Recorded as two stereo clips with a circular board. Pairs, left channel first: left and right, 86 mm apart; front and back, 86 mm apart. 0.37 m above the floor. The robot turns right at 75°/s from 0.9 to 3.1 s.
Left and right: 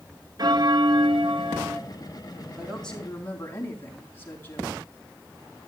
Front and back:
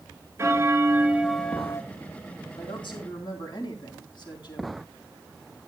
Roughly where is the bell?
Behind right.